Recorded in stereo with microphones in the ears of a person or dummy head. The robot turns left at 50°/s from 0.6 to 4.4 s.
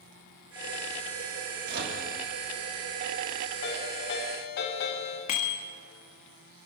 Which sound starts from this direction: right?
A microwave, at 1.7 s.